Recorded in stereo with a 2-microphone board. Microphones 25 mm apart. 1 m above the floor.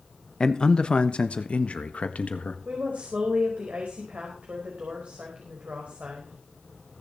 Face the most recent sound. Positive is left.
turn(degrees=-65)  # may be behind; listen again after turning